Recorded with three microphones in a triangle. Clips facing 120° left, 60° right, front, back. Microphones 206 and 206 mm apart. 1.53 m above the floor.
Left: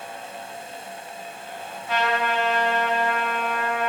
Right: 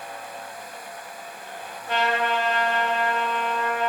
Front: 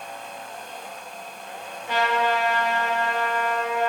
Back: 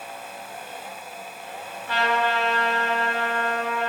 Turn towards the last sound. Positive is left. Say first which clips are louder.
# even, front 1 dB
turn(degrees=-70)